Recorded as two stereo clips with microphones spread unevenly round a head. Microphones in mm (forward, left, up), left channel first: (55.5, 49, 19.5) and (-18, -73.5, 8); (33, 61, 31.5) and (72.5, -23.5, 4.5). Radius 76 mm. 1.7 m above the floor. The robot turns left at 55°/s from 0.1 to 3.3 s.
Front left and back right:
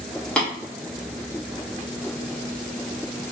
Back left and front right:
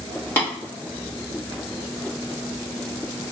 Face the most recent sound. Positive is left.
turn(degrees=-30)